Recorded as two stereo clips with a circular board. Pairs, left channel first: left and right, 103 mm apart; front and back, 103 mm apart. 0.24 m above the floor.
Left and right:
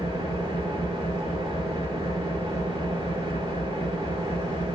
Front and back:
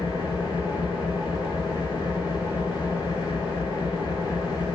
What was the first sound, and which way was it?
An engine running, 45° right.